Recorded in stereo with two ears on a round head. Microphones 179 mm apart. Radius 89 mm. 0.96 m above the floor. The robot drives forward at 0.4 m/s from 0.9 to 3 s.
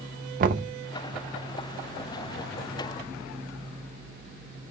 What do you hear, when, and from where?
0.4 s knocking: 45° right (ahead or behind), 0.6 m